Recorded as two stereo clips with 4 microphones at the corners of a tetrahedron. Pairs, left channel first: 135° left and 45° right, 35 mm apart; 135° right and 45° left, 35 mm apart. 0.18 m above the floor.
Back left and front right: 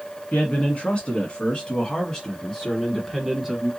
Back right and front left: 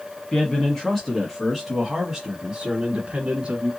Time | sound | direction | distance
0.3 | a man speaking | 165° left | 1.6 m